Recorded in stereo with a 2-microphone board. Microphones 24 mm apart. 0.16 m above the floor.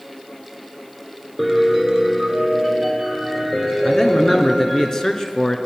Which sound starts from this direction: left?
A man speaking, at 3.9 s.